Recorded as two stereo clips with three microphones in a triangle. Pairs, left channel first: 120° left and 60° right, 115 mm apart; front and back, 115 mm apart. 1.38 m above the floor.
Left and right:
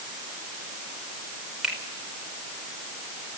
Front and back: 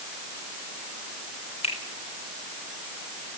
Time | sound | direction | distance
1.6 | a finger snap | 25° left | 4.5 m